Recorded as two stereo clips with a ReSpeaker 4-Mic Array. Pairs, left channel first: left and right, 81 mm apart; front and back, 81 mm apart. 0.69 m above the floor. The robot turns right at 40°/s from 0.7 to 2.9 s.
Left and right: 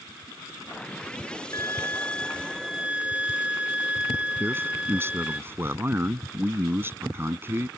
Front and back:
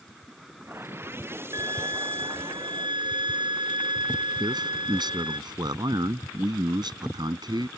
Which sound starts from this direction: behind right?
A man speaking, at 4.4 s.